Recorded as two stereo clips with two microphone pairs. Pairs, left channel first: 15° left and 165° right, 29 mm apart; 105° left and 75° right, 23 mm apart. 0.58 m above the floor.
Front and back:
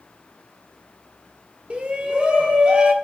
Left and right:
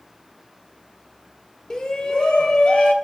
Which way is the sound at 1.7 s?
155° left.